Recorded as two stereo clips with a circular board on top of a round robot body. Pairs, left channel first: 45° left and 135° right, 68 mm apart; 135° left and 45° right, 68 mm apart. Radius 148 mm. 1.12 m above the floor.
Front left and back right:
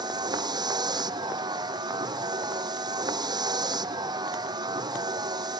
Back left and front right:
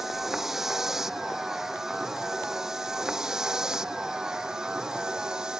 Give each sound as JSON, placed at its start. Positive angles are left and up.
{"t": 0.0, "sound": "a vehicle", "azimuth_deg": -130}